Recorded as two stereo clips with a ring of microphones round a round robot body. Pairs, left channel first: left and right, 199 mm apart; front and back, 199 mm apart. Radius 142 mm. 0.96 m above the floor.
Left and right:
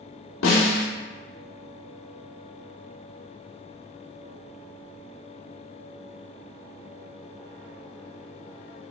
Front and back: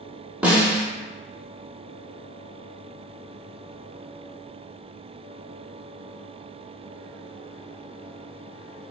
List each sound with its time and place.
0.4 s a snare drum: 95° left, 0.9 m